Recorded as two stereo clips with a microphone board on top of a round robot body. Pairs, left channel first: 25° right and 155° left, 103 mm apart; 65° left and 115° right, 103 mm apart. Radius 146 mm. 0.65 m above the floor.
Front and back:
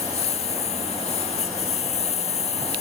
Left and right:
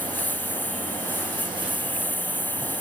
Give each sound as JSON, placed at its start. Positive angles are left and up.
{"t": 0.0, "sound": "a lawn mower", "azimuth_deg": -5}